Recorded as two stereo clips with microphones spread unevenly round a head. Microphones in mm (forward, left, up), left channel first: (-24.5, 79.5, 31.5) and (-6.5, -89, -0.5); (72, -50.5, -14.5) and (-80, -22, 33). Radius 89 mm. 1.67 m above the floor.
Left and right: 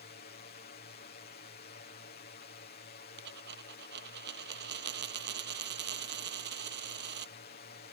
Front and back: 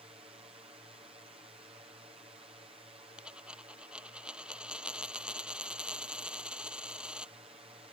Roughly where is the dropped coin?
Right.